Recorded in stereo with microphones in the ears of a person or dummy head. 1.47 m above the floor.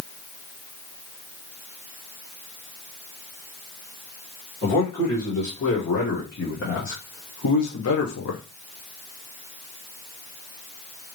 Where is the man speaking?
40° left (ahead or behind), 2.5 m; by 8.4 s 75° left (ahead or behind), 1.1 m.